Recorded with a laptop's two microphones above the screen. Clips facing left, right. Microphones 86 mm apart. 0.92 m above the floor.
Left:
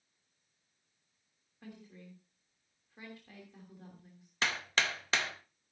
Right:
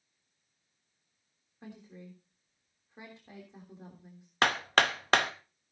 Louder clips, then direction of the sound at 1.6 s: Right 3 dB; 20° right (ahead or behind).